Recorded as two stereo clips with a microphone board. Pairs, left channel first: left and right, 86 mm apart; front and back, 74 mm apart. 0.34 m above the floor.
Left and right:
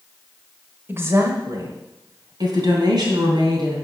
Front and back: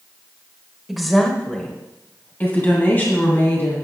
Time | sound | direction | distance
0.9 | a woman speaking | 100° right | 1.1 m